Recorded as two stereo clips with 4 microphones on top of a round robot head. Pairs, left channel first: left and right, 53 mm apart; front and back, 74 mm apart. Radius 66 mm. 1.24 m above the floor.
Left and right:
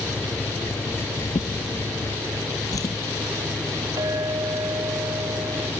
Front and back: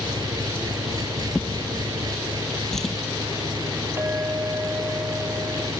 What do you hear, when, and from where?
0.0 s an engine running: 145° left
1.4 s a drawer: 85° left
4.0 s a clink: 110° right